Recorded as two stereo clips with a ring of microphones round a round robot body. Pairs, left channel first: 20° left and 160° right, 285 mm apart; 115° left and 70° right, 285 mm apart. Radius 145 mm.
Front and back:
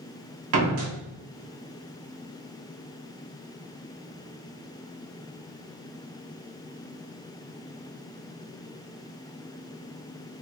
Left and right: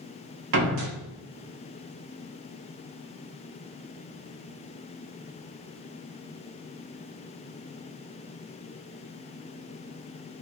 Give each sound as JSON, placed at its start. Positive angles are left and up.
{"t": 0.5, "sound": "a door slam", "azimuth_deg": -115, "distance_m": 1.3}